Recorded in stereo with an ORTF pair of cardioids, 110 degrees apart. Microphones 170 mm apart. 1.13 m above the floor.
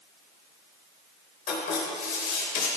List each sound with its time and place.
1.5 s writing: 65° left, 4 m